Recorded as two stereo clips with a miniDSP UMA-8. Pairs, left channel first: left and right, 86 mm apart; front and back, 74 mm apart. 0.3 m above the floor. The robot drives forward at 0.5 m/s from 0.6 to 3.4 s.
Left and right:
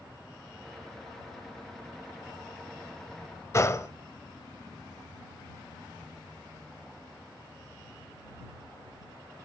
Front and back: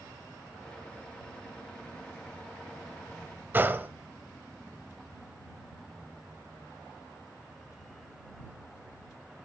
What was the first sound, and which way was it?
A gunshot, 130° left.